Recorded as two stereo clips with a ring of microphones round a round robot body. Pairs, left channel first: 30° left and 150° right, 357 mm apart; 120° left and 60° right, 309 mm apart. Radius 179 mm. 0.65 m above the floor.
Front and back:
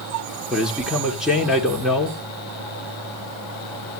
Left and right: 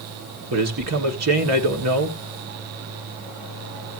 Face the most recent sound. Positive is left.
turn(degrees=-60)